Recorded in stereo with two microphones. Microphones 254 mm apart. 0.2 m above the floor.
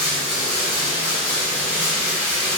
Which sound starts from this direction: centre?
Running water, at 0.0 s.